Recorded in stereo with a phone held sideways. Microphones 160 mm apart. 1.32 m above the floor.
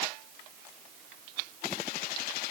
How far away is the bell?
No bell in this recording.